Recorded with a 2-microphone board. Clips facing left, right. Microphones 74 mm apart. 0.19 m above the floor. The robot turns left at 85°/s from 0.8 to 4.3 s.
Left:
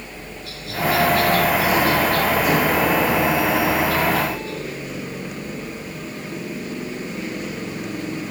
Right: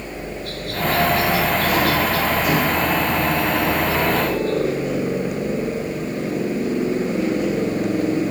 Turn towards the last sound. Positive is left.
turn(degrees=-55)